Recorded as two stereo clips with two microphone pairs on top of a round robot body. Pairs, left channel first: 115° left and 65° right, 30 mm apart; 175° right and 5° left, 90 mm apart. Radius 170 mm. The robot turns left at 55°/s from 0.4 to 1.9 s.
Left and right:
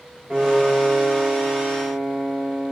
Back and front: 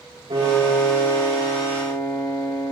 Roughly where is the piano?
Ahead.